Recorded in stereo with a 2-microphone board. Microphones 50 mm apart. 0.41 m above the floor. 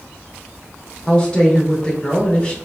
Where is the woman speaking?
20° left (ahead or behind), 0.8 m.